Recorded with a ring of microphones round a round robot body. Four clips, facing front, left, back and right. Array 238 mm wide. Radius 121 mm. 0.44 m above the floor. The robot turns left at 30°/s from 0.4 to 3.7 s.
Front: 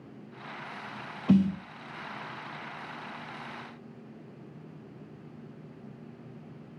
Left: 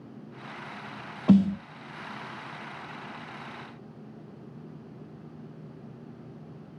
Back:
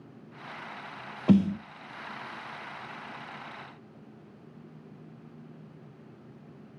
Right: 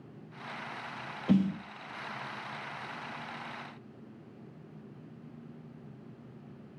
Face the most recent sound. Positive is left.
turn(degrees=60)